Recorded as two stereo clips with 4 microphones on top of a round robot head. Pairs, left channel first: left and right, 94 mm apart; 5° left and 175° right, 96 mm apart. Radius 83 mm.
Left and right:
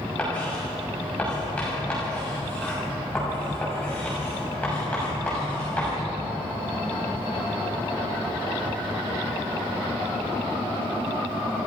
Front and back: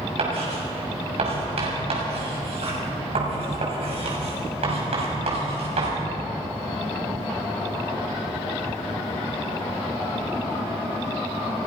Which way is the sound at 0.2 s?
170° left.